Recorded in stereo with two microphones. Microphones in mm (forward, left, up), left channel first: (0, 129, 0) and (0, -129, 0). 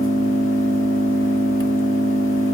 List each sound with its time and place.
0.0 s an engine running: 55° left (ahead or behind), 0.8 m